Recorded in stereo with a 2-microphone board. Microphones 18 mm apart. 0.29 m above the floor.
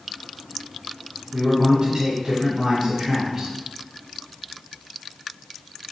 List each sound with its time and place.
1.3 s a man speaking: 40° right (ahead or behind), 2.5 m